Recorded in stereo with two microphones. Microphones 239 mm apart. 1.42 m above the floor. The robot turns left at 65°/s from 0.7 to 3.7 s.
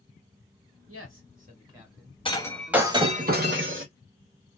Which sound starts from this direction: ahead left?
Breaking glass, at 2.2 s.